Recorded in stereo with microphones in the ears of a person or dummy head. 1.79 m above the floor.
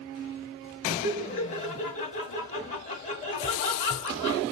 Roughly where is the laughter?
Left.